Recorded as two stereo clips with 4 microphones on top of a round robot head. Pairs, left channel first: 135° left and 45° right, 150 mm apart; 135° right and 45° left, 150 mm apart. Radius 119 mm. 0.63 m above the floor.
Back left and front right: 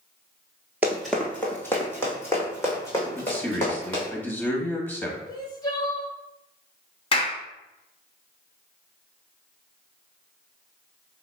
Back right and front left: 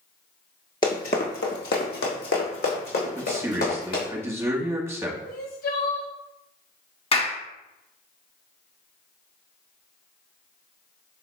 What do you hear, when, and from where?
0.8 s running footsteps: 105° right, 0.6 m; by 4.1 s 155° right, 3.5 m
3.1 s a man speaking: 85° left, 1.2 m
5.3 s crying: 160° right, 0.7 m
7.1 s a clap: straight behind, 1.2 m